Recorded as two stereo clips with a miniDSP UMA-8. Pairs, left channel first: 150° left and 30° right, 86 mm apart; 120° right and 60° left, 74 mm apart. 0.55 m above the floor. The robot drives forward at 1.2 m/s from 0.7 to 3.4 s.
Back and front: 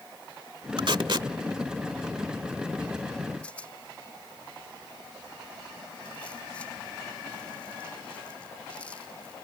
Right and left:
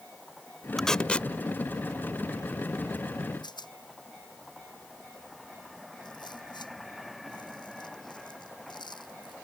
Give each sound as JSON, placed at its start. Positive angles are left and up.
{"t": 0.8, "sound": "tape being pulled", "azimuth_deg": -35}
{"t": 3.4, "sound": "a rattle", "azimuth_deg": -135}